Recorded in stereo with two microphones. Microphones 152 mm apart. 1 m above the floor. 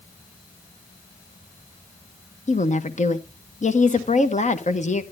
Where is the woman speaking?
50° left (ahead or behind), 0.9 m.